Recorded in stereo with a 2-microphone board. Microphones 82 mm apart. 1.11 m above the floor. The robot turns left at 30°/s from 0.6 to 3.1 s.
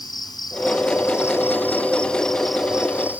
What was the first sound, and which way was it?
An insect, 55° left.